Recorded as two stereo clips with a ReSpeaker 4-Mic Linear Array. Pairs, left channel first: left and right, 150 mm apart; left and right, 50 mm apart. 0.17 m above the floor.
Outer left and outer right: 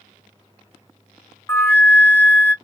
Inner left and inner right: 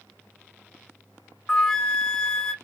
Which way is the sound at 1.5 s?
15° left (ahead or behind).